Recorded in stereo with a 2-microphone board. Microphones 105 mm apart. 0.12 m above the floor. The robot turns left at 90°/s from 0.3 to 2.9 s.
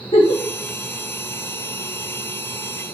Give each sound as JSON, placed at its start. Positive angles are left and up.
{"t": 0.1, "sound": "a giggle", "side_deg": 65, "distance_m": 2.5}